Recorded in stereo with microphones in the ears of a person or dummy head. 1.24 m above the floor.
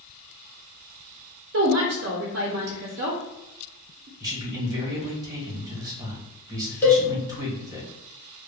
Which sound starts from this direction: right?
A woman speaking, at 1.5 s.